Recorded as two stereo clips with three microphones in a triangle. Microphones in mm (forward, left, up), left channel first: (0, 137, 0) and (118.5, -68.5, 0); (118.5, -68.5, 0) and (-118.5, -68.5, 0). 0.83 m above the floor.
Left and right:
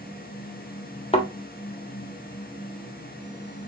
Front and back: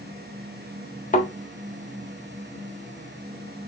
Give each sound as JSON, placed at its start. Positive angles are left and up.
{"t": 1.1, "sound": "a thud", "azimuth_deg": 55, "distance_m": 1.1}